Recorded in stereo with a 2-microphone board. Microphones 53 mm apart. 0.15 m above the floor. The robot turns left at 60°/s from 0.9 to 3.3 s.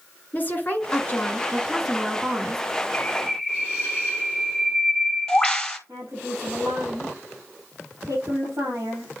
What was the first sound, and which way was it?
A woman speaking, 50° left.